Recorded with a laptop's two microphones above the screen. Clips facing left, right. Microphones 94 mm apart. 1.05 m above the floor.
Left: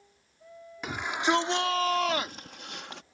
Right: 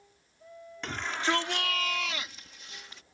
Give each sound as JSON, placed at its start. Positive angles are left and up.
{"t": 0.8, "sound": "a shout", "side_deg": 10}